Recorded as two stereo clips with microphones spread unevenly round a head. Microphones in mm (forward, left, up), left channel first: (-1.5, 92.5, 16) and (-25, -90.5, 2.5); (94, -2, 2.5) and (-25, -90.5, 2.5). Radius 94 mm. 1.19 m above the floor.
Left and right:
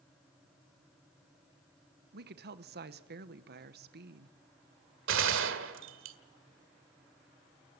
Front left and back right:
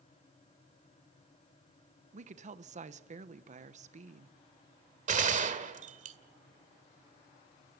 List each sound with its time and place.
2.1 s a woman speaking: 115° right, 1.0 m
5.1 s a gunshot: 115° right, 1.7 m